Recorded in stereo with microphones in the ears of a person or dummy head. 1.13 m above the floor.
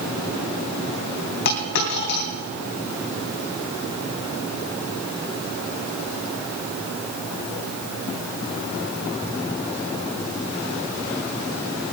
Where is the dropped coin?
60° left (ahead or behind), 3 m.